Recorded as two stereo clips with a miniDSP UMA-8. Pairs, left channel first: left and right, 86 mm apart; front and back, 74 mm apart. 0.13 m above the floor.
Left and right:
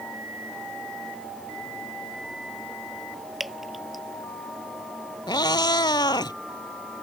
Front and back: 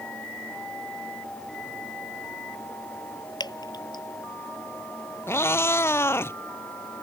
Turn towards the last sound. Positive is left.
turn(degrees=55)